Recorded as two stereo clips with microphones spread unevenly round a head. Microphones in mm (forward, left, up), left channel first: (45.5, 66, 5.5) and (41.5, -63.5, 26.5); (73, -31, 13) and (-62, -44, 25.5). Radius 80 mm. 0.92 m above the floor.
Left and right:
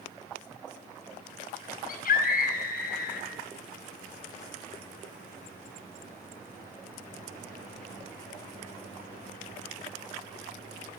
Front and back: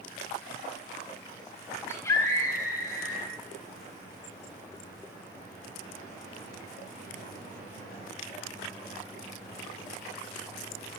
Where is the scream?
80° left, 4.5 m.